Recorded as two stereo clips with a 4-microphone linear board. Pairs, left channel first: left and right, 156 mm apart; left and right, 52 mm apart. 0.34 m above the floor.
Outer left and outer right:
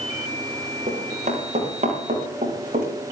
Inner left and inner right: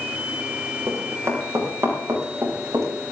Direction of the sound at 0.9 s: 50° right (ahead or behind).